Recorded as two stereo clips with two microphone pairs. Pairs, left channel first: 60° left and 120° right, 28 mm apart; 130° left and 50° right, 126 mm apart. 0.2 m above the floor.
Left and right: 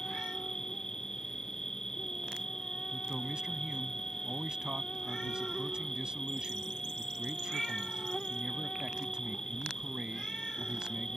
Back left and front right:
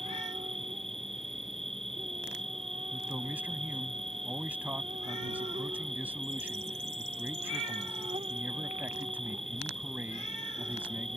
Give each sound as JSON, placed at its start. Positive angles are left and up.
{"t": 0.0, "sound": "an insect", "azimuth_deg": -10}
{"t": 2.9, "sound": "a man speaking", "azimuth_deg": -110}